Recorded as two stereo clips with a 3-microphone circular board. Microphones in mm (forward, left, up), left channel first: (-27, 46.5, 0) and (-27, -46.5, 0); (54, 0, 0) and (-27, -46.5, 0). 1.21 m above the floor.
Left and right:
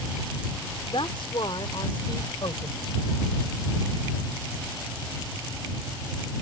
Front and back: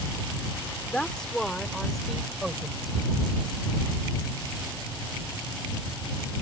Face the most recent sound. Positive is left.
turn(degrees=120)